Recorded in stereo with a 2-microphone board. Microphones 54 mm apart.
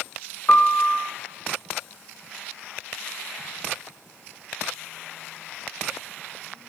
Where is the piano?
35° left (ahead or behind), 0.9 m.